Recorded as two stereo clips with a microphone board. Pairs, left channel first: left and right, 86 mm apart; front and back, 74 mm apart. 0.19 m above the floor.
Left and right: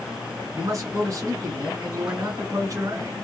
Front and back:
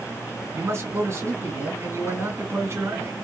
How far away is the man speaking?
About 3 m.